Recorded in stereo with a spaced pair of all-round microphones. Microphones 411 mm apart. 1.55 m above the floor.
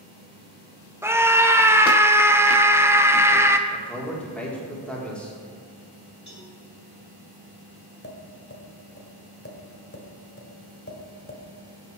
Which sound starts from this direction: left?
Tapping, at 8.0 s.